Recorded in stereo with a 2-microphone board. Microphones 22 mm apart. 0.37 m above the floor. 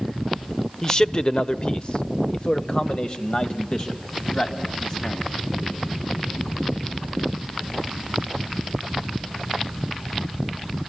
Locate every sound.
0.8 s a man speaking: 25° left (ahead or behind), 0.9 m; by 5.8 s 35° left (ahead or behind), 2.5 m